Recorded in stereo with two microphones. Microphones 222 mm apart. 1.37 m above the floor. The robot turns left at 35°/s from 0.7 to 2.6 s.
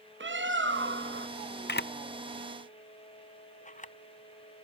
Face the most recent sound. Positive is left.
turn(degrees=35)  # may be behind; listen again after turning